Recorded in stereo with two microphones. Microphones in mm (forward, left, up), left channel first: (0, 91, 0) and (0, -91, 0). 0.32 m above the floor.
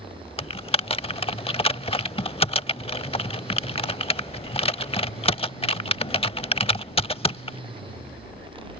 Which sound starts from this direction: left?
Typing on a keyboard, at 0.4 s.